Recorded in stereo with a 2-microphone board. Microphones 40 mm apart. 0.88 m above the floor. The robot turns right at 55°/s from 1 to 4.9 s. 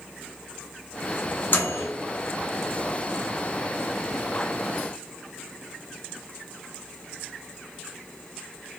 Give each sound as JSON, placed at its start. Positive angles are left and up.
{"t": 1.5, "sound": "a microwave", "side_deg": 55, "distance_m": 0.7}